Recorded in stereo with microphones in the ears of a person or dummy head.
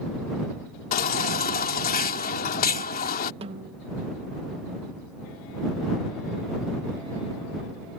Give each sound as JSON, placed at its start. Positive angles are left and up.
{"t": 0.9, "sound": "a baby crying", "side_deg": 60}
{"t": 3.4, "sound": "a snare drum", "side_deg": -40}